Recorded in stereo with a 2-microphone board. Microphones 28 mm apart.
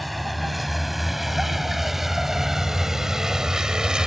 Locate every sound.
0.0 s a vehicle: centre (ahead or behind); by 4.1 s 30° right (ahead or behind)